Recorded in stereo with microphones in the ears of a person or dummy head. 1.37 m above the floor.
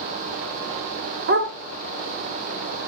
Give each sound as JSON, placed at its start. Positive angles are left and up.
{"t": 1.3, "sound": "a dog barking", "side_deg": -50, "distance_m": 1.4}